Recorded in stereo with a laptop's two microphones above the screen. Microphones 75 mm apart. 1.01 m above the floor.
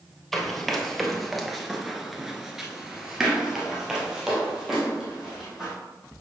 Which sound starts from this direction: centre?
Running footsteps, at 0.3 s.